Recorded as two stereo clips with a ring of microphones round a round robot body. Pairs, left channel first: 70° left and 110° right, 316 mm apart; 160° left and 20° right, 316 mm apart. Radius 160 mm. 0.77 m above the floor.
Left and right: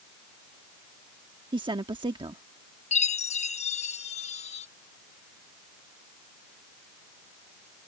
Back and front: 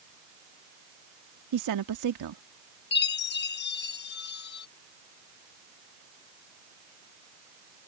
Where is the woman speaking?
40° right.